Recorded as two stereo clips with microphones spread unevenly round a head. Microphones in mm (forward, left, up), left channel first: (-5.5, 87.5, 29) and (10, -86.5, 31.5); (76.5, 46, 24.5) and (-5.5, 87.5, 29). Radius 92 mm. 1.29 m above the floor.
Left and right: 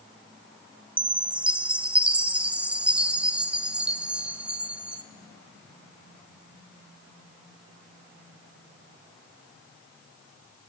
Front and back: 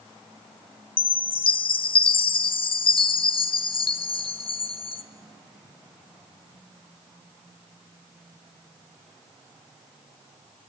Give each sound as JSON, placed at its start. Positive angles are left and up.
{"t": 1.0, "sound": "a chime", "azimuth_deg": 0, "distance_m": 0.9}